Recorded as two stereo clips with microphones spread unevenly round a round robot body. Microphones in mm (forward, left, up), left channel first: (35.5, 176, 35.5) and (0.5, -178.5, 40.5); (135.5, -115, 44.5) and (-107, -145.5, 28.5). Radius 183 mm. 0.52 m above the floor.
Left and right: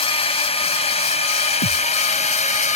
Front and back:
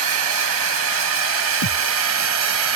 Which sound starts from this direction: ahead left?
A thud, at 1.6 s.